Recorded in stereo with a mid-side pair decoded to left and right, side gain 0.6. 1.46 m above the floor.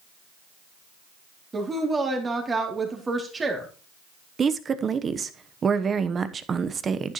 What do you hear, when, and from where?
1.5 s a woman speaking: 25° right, 3 m
4.4 s a woman speaking: 35° right, 1.0 m